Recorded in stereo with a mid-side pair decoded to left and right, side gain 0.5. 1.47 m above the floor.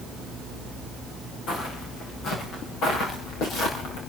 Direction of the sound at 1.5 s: 70° left.